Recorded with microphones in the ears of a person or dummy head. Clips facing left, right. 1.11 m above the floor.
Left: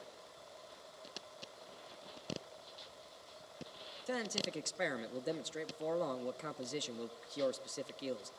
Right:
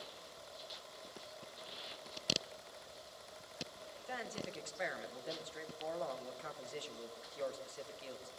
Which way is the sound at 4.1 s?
50° left (ahead or behind).